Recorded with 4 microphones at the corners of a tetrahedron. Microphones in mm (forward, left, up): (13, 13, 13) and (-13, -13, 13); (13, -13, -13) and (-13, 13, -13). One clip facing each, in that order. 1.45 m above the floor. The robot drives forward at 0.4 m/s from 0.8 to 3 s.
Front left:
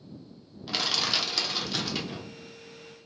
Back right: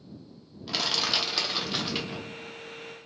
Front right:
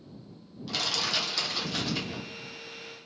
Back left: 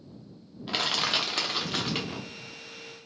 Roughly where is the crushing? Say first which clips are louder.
Even, back left 3 dB; behind left.